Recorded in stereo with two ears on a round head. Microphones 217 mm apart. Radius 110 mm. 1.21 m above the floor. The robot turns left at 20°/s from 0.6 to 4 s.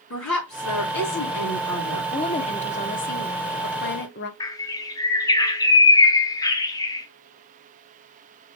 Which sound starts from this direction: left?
A woman speaking, at 0.1 s.